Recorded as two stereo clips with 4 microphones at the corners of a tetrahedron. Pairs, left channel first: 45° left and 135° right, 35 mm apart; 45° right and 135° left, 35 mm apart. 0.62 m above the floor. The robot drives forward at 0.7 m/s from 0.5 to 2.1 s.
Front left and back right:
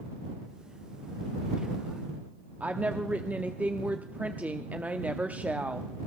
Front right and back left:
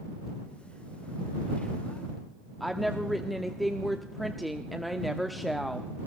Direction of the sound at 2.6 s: 135° right.